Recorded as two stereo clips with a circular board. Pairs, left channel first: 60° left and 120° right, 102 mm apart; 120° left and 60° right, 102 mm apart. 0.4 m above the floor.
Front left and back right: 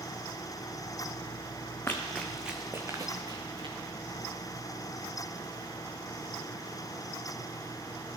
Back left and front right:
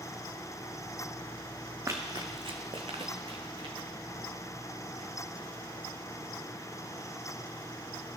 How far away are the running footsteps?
About 1.2 m.